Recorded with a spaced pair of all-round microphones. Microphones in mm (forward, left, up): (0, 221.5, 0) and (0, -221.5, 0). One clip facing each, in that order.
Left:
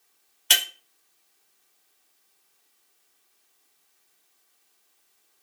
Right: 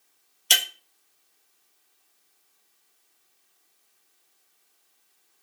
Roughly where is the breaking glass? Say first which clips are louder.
Even; left.